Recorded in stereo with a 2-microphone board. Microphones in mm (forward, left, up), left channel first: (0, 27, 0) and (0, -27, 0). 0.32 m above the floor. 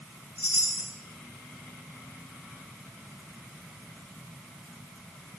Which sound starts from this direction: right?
A chime, at 0.4 s.